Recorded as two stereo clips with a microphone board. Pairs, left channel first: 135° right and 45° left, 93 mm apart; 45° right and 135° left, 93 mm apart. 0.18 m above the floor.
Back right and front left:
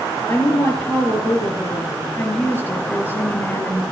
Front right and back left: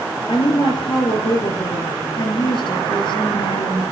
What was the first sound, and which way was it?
A woman speaking, 70° right.